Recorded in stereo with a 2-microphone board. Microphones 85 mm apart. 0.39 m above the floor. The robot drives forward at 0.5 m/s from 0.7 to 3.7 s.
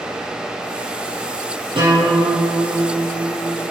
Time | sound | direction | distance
1.8 | a guitar | 90° right | 4 m